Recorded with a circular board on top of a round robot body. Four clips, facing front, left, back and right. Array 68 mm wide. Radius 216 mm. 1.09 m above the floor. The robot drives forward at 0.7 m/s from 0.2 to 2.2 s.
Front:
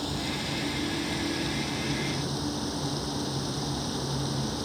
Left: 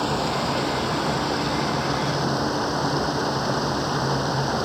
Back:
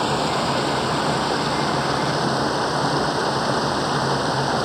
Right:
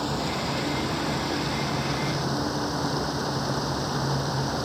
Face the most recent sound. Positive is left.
turn(degrees=165)